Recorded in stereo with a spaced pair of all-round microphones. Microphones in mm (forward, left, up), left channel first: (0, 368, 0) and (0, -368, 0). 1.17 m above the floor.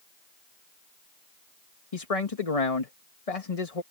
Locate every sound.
1.9 s a man speaking: 50° left (ahead or behind)